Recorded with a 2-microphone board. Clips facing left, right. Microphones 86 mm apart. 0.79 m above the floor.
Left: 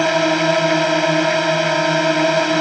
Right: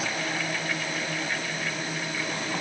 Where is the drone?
65° left (ahead or behind).